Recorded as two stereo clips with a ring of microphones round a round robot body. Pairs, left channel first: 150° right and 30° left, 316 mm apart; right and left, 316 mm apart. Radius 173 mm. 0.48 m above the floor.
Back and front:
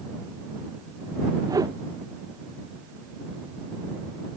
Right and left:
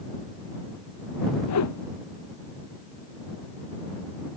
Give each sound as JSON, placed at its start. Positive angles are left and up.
{"t": 1.5, "sound": "a whoosh", "azimuth_deg": -50}